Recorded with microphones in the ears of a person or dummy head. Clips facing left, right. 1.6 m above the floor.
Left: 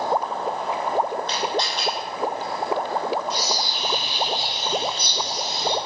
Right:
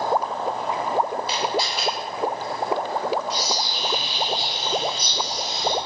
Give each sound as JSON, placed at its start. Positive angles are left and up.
{"t": 1.3, "sound": "a camera shutter", "side_deg": -10, "distance_m": 1.6}
{"t": 3.3, "sound": "a bird", "side_deg": 35, "distance_m": 1.8}